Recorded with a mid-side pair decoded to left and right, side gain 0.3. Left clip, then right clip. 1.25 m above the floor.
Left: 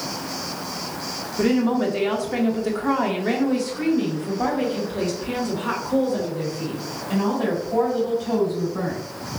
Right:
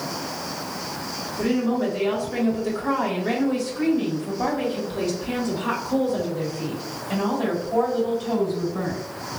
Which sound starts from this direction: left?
A woman speaking, at 1.4 s.